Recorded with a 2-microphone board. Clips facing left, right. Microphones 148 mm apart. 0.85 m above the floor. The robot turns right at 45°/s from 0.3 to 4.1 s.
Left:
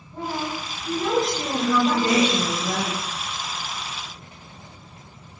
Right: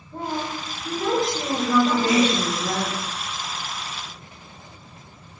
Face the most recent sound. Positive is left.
turn(degrees=-65)